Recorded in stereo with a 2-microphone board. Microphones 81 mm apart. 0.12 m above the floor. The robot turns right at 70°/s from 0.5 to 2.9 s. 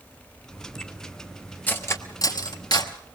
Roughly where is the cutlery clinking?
Left.